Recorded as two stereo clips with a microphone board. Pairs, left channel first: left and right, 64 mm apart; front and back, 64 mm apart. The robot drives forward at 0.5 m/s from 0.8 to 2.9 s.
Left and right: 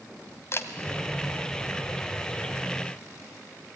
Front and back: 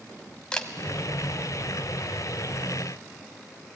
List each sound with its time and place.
0.5 s a camera shutter: 70° left, 1.6 m